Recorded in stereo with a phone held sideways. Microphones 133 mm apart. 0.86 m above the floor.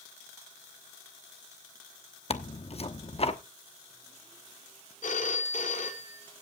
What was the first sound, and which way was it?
Tearing paper, 50° left (ahead or behind).